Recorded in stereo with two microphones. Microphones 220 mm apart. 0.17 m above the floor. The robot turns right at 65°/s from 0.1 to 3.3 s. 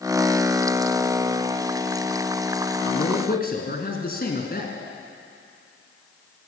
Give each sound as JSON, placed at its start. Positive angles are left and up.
{"t": 2.9, "sound": "a man speaking", "side_deg": 50, "distance_m": 1.7}